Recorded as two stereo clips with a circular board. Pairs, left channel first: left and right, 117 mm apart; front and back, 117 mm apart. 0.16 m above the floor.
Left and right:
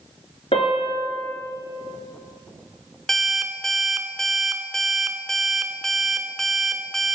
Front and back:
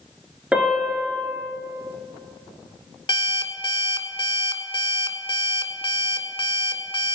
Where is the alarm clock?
5° left, 0.9 m.